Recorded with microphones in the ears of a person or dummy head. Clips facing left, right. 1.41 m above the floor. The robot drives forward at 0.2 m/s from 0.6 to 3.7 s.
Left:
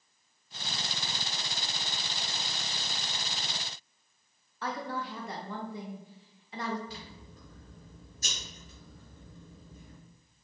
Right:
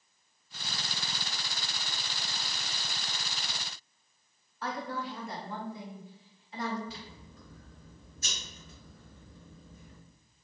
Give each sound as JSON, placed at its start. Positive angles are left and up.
{"t": 4.6, "sound": "a woman speaking", "side_deg": 55, "distance_m": 0.7}
{"t": 6.9, "sound": "scissors", "side_deg": 35, "distance_m": 1.9}